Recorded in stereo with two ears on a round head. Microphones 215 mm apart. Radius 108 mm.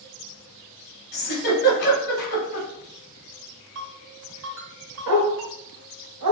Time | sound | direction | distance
1.1 | a giggle | 40° left (ahead or behind) | 1.6 m
3.8 | a ringtone | 55° right (ahead or behind) | 1.4 m
5.1 | a dog barking | 80° right | 1.0 m